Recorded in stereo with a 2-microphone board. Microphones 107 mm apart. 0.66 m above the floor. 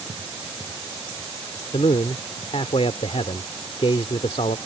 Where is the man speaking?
65° left (ahead or behind).